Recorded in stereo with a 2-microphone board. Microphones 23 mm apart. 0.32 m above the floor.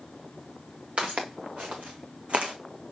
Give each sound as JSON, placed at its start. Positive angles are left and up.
{"t": 1.0, "sound": "footsteps", "side_deg": -60, "distance_m": 2.5}